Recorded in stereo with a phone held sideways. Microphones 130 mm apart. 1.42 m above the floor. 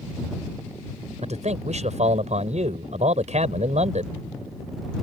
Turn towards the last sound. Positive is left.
turn(degrees=-55)  # may be behind; listen again after turning